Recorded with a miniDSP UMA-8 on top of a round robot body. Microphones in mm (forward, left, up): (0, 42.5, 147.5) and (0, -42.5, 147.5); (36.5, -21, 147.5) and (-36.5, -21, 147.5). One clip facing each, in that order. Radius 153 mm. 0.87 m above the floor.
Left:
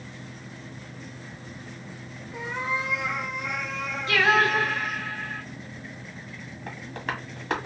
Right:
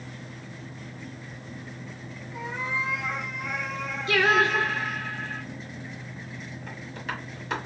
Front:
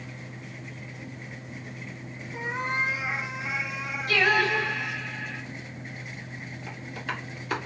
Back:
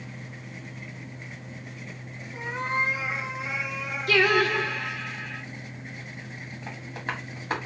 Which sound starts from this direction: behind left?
Tapping, at 6.7 s.